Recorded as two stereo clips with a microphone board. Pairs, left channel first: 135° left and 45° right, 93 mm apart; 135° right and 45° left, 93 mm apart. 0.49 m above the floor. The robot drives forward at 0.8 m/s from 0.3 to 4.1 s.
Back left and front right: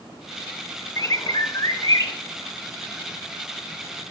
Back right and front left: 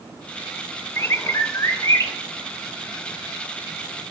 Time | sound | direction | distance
1.0 | a bird | 170° left | 0.7 m